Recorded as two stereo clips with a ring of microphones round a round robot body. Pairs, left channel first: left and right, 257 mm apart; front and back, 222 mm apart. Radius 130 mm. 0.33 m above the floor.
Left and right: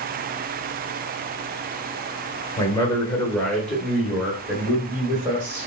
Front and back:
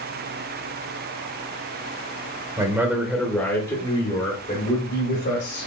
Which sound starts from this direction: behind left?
A man speaking, at 2.6 s.